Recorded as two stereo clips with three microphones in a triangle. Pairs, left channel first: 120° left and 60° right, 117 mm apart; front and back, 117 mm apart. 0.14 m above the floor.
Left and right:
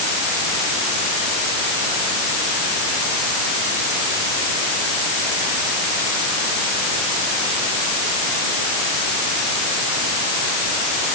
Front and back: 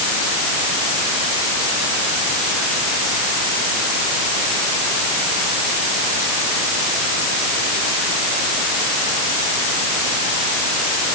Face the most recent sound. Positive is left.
No sound to turn to.